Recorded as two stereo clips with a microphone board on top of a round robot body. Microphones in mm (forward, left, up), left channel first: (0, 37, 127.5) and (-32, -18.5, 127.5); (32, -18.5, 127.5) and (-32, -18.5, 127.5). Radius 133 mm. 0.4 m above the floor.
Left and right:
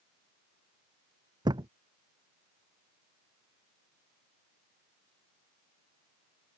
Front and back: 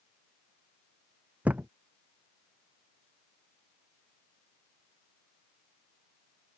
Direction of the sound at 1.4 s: 110° right.